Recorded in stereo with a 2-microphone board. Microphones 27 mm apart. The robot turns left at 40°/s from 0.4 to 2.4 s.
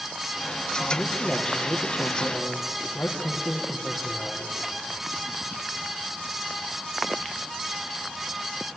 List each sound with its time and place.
0.9 s a man speaking: 165° left, 3 m; by 4.5 s 110° left, 3 m